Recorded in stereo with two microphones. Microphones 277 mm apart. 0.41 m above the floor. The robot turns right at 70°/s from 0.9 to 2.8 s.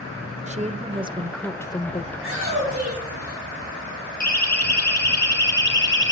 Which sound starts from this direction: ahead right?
A woman speaking, at 0.5 s.